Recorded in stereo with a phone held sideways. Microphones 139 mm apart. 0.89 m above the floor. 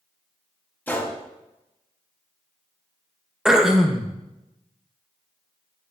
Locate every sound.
0.9 s a gunshot: 15° left (ahead or behind), 0.9 m
3.5 s throat clearing: 5° right (ahead or behind), 0.5 m